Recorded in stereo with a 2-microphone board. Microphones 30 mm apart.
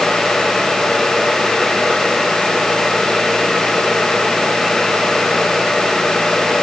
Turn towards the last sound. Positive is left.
No sound to turn to.